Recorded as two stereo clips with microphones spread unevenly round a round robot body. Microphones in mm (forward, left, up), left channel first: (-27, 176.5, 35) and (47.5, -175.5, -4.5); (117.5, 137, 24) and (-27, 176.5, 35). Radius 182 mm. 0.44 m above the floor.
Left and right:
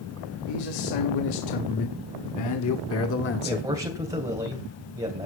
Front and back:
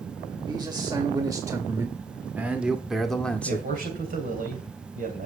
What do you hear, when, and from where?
0.5 s a man speaking: 105° left, 2 m; by 3.7 s 45° left, 1.3 m
3.5 s a man speaking: 155° right, 2.5 m